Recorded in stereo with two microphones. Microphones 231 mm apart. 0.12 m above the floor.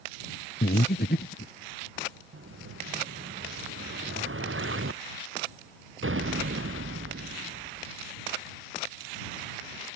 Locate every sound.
0.6 s breathing: 55° left (ahead or behind)
2.3 s an explosion: 65° right (ahead or behind)